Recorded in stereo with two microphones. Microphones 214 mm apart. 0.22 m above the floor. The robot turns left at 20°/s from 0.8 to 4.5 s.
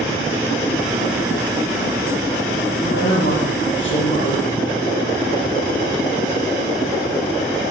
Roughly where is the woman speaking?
Left.